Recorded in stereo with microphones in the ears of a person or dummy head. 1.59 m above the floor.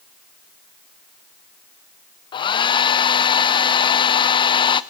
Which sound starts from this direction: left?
A hair dryer, at 2.3 s.